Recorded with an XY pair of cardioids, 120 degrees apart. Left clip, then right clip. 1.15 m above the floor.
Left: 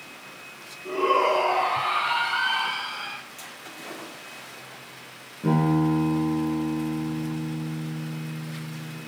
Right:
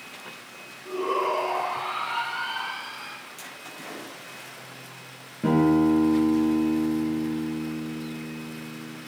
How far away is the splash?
About 6.5 m.